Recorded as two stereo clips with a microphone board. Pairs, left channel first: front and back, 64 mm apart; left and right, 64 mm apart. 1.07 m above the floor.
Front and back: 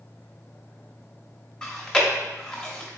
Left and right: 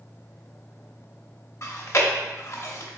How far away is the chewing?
About 0.7 m.